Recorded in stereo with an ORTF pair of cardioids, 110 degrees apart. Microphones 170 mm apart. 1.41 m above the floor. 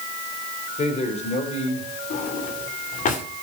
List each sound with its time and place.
0.8 s a man speaking: 40° left, 4 m
2.1 s a drawer: 50° left, 2.5 m